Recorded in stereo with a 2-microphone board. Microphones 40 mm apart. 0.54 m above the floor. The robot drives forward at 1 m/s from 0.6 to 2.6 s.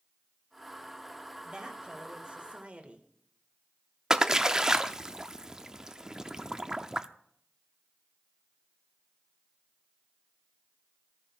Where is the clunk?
No clunk in this recording.